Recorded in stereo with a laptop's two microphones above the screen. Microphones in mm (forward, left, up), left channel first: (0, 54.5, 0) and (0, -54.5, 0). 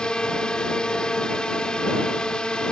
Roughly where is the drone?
Centre.